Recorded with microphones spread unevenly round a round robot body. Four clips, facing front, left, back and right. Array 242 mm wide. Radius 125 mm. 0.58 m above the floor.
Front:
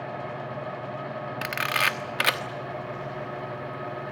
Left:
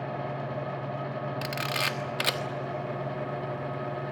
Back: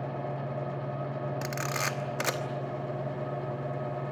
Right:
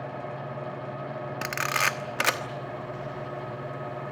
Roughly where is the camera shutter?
Ahead right.